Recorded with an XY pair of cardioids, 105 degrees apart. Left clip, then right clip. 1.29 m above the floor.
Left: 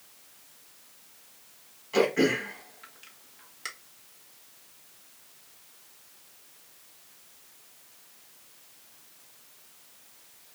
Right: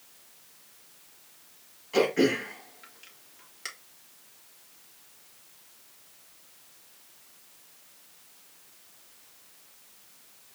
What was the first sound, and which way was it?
Throat clearing, straight ahead.